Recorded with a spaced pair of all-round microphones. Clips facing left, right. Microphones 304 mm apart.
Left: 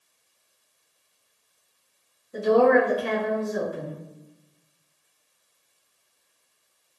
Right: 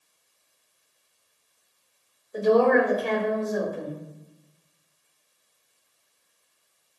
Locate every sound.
2.3 s a woman speaking: 85° left, 1.6 m